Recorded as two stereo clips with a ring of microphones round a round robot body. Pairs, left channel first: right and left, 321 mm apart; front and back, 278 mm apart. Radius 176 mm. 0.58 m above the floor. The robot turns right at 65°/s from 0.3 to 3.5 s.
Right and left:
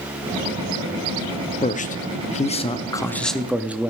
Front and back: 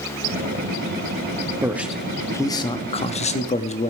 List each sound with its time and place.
1.6 s a man speaking: 115° right, 0.6 m; by 3.9 s 10° left, 0.6 m